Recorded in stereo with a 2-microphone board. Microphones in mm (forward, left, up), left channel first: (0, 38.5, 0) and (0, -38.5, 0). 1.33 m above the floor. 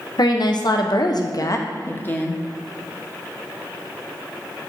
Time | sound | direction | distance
0.2 | a woman speaking | 60° left (ahead or behind) | 0.9 m